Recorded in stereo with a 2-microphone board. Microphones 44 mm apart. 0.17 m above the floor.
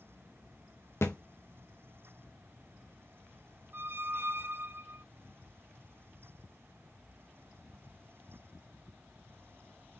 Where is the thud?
75° left (ahead or behind), 1.6 m.